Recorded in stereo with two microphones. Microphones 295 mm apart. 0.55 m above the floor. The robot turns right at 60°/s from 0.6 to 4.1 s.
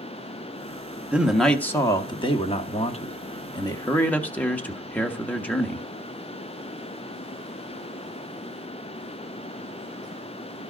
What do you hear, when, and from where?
1.1 s a man speaking: 5° right (ahead or behind), 0.8 m; by 5.8 s 5° left (ahead or behind), 0.8 m